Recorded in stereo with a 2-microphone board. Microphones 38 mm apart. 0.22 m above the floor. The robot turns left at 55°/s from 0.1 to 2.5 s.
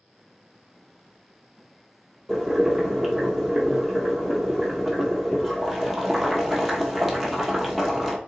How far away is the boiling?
About 1.1 m.